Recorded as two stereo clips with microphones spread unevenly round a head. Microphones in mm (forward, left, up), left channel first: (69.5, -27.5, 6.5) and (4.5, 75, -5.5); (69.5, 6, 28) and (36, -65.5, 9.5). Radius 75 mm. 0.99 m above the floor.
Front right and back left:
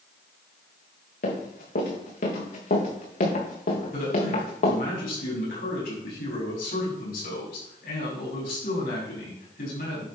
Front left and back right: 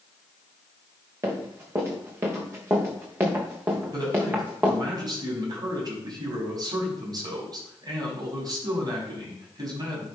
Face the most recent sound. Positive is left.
turn(degrees=-80)